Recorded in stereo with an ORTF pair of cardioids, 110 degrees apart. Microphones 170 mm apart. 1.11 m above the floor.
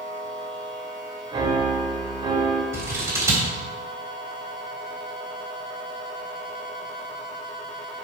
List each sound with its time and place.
1.3 s a piano: 30° right, 2.5 m
2.7 s scissors: 15° right, 3.5 m